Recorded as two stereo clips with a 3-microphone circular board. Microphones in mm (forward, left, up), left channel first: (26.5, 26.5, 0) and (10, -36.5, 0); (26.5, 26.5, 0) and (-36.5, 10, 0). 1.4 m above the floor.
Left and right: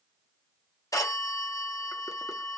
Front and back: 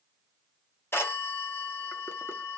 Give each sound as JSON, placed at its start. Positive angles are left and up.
{"t": 0.9, "sound": "a phone ringing", "azimuth_deg": 65, "distance_m": 0.8}